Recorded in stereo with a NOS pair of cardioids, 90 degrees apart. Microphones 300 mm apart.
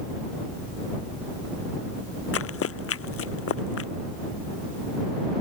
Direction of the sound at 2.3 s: 50° left.